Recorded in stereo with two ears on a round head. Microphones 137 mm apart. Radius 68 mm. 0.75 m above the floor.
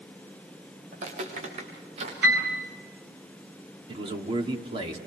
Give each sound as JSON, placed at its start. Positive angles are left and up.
{"t": 0.9, "sound": "footsteps", "side_deg": -50, "distance_m": 5.5}
{"t": 2.2, "sound": "a piano", "side_deg": -85, "distance_m": 7.5}
{"t": 3.9, "sound": "a man speaking", "side_deg": -35, "distance_m": 2.0}